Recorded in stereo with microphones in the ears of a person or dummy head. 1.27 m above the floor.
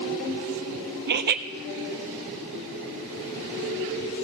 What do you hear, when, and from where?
1.1 s laughter: 50° right (ahead or behind), 0.6 m